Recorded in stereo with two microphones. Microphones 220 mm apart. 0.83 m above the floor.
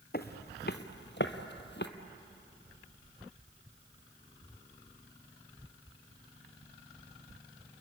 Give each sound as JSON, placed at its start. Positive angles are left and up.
{"t": 0.1, "sound": "footsteps", "side_deg": 45, "distance_m": 1.2}